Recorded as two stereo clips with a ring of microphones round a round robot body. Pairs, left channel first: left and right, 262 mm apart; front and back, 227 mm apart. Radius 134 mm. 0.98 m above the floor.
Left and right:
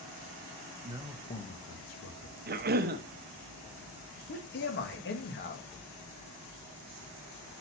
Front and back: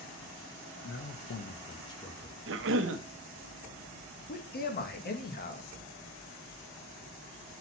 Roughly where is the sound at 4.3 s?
Ahead left.